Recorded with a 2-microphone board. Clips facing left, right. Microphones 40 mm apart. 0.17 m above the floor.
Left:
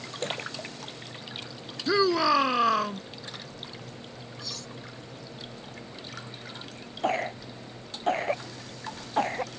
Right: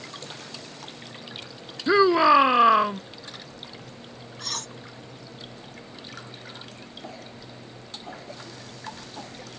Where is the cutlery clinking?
60° right (ahead or behind).